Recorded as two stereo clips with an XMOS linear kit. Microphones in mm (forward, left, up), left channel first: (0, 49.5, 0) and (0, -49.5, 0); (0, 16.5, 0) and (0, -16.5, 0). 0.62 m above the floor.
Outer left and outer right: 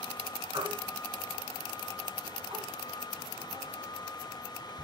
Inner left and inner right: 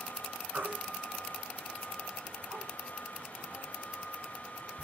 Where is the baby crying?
55° right (ahead or behind), 1.3 m.